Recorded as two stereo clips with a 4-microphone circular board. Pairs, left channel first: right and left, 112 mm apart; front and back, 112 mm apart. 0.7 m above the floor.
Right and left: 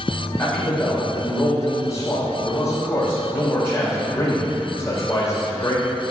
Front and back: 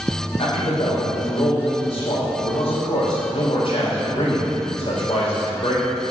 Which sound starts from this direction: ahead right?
A man speaking, at 0.4 s.